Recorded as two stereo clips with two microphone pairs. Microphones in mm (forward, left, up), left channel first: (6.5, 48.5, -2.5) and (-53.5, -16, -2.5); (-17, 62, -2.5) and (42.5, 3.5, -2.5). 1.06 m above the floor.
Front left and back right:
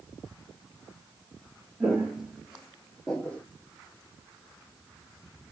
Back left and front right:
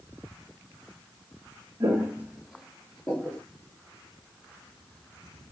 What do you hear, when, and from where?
1.8 s footsteps: 70° right, 1.1 m; by 3.4 s 100° left, 1.1 m